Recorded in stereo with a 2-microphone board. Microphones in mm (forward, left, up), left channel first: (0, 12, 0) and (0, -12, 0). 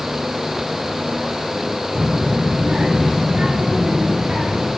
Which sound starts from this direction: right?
A child speaking, at 1.9 s.